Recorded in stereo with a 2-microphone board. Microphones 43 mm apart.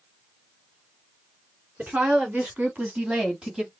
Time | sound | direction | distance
1.8 | a woman speaking | 45° right (ahead or behind) | 2.5 m